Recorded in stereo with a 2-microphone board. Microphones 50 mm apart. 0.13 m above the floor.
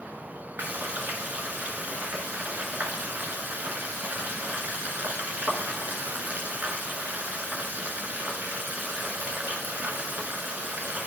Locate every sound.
0.6 s frying: 35° right (ahead or behind), 1.0 m